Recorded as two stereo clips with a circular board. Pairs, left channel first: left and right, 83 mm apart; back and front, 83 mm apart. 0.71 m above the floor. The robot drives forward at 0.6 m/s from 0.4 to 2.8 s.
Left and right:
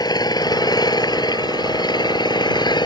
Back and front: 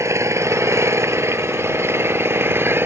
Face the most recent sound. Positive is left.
turn(degrees=60)